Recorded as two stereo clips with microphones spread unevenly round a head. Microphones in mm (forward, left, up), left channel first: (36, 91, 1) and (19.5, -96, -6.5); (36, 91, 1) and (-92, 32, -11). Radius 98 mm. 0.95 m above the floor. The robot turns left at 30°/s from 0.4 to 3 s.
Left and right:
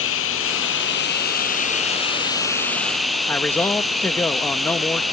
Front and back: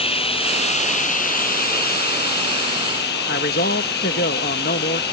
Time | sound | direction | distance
0.0 | running water | 75° left | ?
3.3 | a man speaking | 5° left | ?